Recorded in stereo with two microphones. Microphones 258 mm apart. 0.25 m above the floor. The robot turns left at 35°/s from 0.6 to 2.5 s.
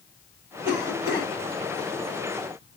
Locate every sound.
0.7 s a cough: 45° right (ahead or behind), 2 m; by 1.3 s 40° right (ahead or behind), 2 m